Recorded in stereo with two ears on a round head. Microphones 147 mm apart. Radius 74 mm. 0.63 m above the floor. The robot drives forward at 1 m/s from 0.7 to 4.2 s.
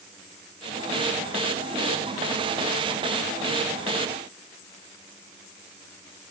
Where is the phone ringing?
No phone ringing in this recording.